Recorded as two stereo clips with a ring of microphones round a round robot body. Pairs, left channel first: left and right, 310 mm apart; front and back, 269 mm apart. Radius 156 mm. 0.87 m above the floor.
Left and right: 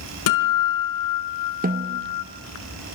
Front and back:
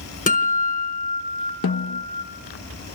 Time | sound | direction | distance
0.3 | a guitar | 60° left | 4 m
1.6 | a snare drum | 30° right | 0.8 m